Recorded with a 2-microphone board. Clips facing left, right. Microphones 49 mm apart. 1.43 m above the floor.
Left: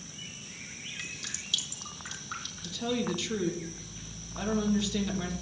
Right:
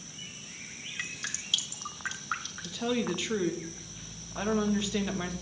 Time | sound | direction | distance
1.0 | dripping | 45° right (ahead or behind) | 1.6 m
2.6 | a woman speaking | 30° right (ahead or behind) | 1.8 m